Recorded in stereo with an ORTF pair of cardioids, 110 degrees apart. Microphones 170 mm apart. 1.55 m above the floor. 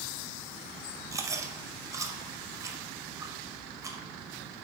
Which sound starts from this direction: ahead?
Chewing, at 1.1 s.